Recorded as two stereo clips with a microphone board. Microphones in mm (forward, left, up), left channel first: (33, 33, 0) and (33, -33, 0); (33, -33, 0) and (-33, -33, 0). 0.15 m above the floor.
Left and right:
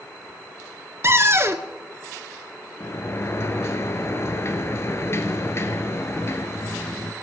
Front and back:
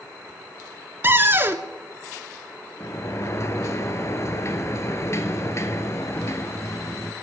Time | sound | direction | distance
1.0 | a cupboard door | 125° right | 0.8 m
2.8 | a sliding door | 45° left | 0.9 m